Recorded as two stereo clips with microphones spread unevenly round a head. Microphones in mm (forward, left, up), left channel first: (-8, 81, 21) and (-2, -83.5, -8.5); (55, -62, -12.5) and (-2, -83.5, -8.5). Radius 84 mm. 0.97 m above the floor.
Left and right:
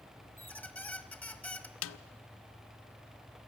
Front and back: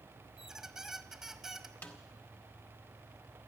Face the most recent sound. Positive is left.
turn(degrees=100)